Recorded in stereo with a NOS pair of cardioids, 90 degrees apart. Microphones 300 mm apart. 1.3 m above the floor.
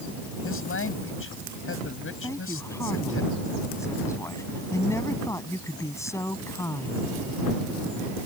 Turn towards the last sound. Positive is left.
turn(degrees=10)